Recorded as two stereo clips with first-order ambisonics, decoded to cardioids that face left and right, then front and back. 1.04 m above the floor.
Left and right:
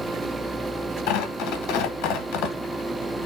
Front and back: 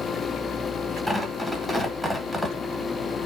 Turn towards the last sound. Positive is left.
turn(degrees=95)